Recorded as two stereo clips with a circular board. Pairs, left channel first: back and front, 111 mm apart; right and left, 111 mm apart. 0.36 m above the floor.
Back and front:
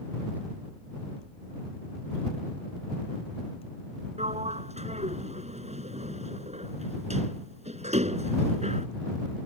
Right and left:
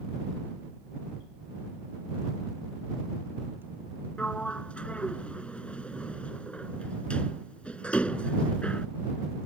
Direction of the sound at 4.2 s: 10° right.